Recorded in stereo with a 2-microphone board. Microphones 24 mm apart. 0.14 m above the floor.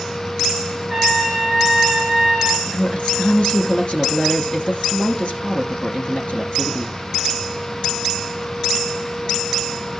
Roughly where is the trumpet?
Centre.